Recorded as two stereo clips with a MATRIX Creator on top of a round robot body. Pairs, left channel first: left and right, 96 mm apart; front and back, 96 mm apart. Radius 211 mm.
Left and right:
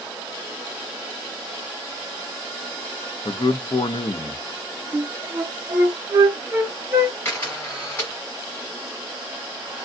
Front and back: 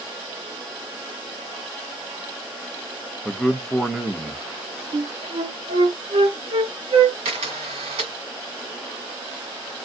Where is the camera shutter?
160° left, 1.7 m.